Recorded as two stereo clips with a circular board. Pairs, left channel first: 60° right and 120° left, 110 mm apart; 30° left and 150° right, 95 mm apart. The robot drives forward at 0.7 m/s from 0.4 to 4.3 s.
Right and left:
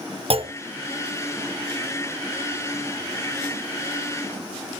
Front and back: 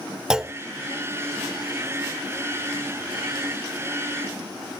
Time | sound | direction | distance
0.3 | a clunk | 130° left | 0.7 m